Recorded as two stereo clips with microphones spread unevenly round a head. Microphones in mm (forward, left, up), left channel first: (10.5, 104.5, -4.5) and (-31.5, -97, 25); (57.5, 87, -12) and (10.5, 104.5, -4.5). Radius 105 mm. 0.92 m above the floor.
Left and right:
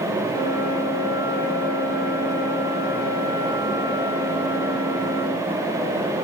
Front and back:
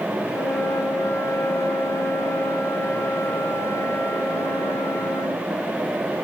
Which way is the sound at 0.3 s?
10° left.